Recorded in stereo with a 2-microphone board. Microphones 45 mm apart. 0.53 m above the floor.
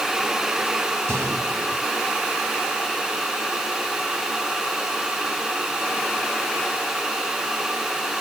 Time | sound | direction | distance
1.1 | a gunshot | 75° right (ahead or behind) | 4.5 m